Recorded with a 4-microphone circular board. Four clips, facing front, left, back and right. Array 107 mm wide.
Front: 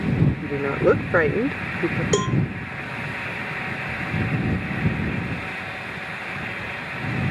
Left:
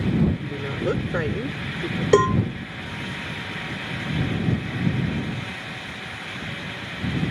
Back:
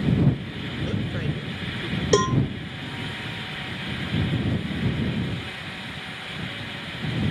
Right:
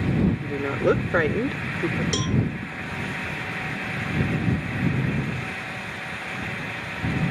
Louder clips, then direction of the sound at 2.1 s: Left 10 dB, back 5 dB; 100° left.